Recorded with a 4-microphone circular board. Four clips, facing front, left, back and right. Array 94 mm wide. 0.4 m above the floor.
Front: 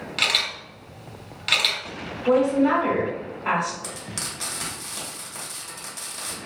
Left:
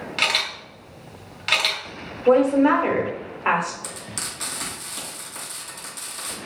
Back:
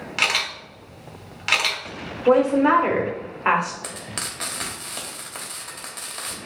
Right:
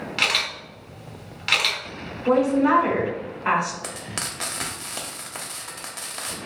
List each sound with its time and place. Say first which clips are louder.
0.2 s a camera shutter: left 1 dB, back 3 dB; 175° right, 1.4 m
2.3 s a woman speaking: left 3 dB, back 2 dB; 160° left, 1.5 m
3.8 s frying: right 2 dB, back 1 dB; 120° right, 1.4 m